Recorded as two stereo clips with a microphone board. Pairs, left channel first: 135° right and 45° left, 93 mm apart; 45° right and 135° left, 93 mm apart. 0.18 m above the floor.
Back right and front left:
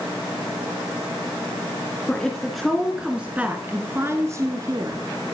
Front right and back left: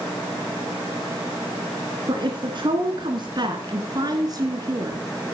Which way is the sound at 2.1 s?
145° left.